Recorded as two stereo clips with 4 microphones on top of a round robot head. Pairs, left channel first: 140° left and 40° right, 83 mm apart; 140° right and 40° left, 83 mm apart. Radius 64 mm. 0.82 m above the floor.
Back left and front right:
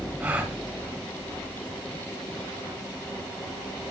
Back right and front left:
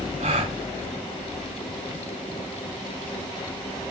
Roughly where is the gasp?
Ahead left.